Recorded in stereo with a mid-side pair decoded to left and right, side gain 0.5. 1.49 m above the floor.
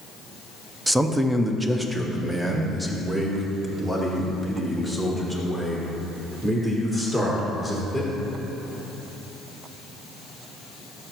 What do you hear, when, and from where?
0.9 s a man speaking: 10° right, 0.7 m; by 8.1 s 15° right, 4.5 m